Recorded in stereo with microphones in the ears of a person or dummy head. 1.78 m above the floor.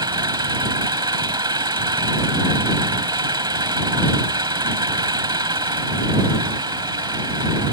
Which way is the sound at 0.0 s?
20° right (ahead or behind).